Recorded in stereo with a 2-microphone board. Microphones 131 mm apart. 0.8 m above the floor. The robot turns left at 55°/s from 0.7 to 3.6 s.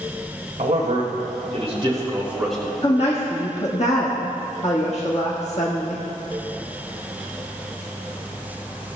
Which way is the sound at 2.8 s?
125° left.